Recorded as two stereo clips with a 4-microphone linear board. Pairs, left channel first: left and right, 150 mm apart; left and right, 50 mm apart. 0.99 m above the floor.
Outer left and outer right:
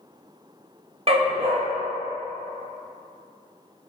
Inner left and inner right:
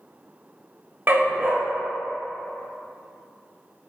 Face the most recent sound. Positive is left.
turn(degrees=-40)  # may be behind; listen again after turning